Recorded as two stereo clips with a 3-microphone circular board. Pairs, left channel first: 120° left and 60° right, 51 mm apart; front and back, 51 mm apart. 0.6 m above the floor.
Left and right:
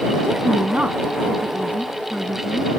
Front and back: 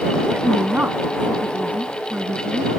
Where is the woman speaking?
120° right.